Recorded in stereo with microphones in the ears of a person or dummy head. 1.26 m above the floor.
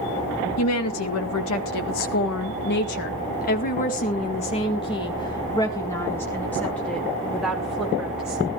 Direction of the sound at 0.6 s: 80° left.